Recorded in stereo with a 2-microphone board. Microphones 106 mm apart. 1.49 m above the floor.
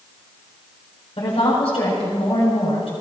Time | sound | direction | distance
1.2 | a woman speaking | 65° left (ahead or behind) | 7.5 m